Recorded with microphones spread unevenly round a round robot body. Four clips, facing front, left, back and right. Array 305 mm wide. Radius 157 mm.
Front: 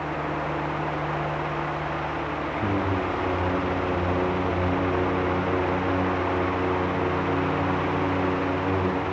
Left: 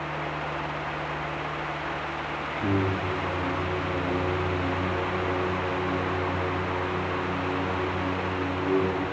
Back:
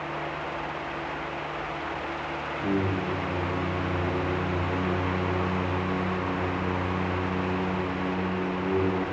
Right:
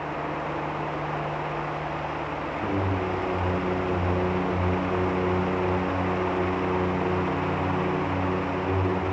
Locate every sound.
2.6 s singing: 15° right, 4 m